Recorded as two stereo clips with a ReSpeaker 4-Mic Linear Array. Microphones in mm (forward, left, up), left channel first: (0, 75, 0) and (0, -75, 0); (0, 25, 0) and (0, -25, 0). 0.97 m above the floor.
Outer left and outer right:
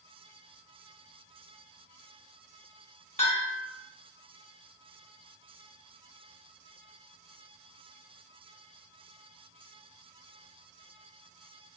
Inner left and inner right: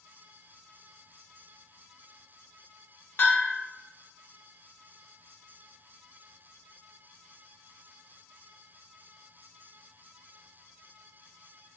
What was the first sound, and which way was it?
A bell, 50° left (ahead or behind).